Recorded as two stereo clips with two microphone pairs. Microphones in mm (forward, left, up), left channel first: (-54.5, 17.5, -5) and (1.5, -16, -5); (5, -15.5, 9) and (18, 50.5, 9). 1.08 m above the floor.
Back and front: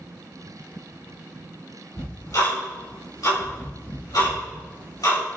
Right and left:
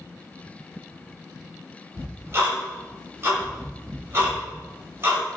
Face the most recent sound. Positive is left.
turn(degrees=130)